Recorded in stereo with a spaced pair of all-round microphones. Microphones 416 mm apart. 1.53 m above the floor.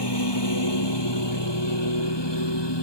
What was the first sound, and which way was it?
A lawn mower, 75° left (ahead or behind).